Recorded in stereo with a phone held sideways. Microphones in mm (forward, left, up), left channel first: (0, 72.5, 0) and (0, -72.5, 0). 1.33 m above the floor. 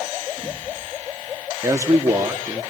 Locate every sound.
1.6 s a man speaking: 20° right (ahead or behind), 3 m